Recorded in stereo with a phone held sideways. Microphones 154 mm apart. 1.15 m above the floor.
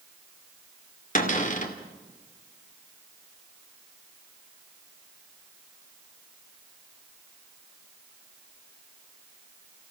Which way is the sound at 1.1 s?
55° left (ahead or behind).